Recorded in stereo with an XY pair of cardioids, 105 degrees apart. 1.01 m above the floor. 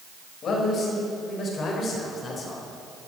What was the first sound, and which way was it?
A man speaking, 55° left.